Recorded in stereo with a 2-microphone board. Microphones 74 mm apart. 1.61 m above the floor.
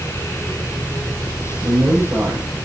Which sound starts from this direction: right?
A man speaking, at 1.6 s.